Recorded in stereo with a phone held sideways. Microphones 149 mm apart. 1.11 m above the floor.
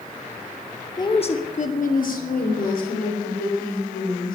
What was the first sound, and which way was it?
A woman speaking, 25° left (ahead or behind).